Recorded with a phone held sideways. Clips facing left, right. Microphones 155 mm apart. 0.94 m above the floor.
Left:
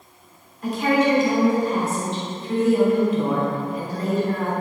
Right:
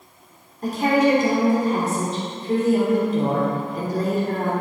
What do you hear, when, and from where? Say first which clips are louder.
0.6 s a woman speaking: right 1 dB; 40° right (ahead or behind), 3 m